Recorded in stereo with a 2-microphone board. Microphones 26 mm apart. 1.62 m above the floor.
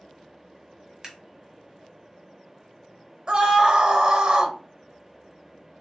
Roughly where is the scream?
Right.